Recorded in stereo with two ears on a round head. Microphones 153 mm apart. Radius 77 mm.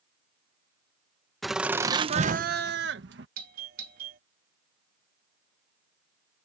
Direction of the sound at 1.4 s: Centre (ahead or behind).